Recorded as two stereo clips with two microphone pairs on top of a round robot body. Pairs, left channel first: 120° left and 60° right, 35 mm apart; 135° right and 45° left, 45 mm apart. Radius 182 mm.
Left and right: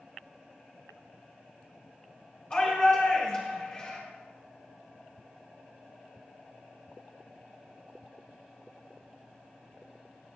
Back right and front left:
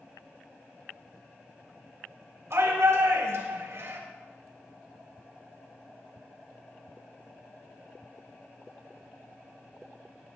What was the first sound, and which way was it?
A shout, 65° left.